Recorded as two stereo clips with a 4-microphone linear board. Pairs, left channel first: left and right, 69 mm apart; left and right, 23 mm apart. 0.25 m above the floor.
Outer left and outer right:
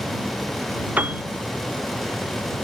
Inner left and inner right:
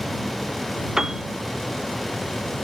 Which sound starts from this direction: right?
A piano, at 1.0 s.